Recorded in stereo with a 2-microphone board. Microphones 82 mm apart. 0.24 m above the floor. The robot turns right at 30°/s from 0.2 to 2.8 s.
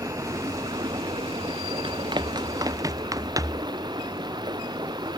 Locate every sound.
0.0 s running water: 135° right; by 5.2 s 60° right
1.8 s running footsteps: 70° right (ahead or behind); by 3.7 s 45° right (ahead or behind)